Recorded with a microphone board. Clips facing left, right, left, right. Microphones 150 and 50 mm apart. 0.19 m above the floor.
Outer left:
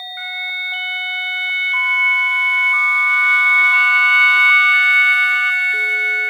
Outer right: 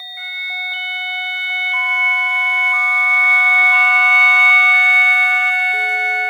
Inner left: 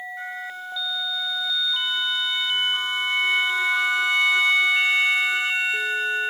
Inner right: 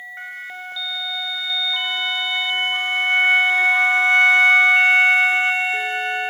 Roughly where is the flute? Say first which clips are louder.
Outer left 1 dB, even; right.